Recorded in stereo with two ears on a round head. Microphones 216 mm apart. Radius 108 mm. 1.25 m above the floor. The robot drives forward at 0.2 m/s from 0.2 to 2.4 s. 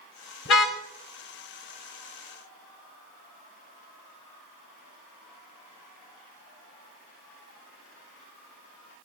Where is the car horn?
55° left (ahead or behind), 3 m.